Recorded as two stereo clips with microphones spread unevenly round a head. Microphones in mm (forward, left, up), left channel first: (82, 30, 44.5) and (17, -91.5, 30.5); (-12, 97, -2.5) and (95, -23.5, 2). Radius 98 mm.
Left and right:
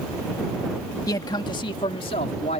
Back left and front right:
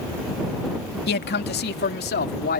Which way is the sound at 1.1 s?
130° left.